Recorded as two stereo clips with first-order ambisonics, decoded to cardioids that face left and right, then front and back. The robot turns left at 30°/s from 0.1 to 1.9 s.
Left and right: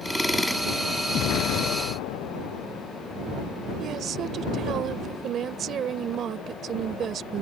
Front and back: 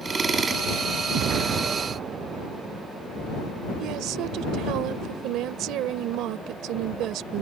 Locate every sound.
1.1 s an explosion: 140° left; by 2.9 s 115° left
3.8 s a woman speaking: 145° right